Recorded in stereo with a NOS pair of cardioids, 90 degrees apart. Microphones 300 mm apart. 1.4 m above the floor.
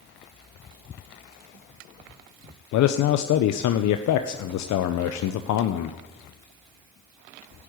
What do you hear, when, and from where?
2.7 s a man speaking: 70° left, 0.8 m